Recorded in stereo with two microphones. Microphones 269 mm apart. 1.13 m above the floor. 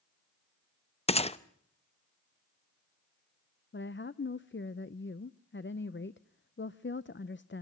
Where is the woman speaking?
45° left (ahead or behind), 0.5 m.